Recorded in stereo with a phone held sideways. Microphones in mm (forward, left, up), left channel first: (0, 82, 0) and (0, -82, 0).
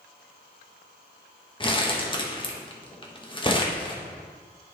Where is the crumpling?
30° left (ahead or behind), 1.0 m.